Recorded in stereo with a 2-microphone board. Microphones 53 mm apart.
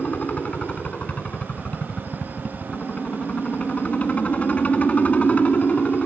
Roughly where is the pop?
No pop in this recording.